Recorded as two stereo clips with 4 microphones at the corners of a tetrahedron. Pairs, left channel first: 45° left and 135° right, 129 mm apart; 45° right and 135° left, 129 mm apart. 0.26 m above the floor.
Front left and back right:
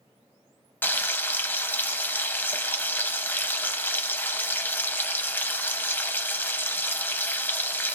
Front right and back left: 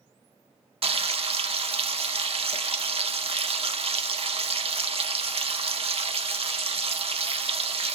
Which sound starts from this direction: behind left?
Frying, at 0.8 s.